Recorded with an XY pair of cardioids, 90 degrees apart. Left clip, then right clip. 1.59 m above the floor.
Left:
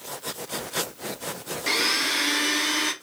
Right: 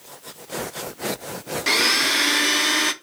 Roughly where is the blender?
Ahead right.